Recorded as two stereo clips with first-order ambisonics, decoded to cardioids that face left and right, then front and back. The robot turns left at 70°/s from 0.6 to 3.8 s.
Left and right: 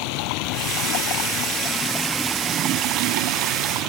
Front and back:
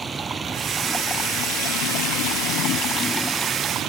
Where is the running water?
105° left; by 3.9 s 120° right.